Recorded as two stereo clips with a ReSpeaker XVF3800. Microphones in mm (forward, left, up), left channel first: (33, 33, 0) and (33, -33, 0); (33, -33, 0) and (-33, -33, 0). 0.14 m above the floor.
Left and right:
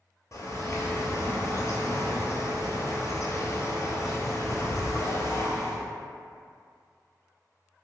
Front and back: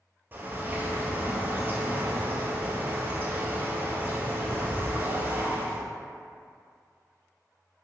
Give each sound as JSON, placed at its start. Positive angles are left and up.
{"t": 0.3, "sound": "a bird", "azimuth_deg": 125, "distance_m": 0.6}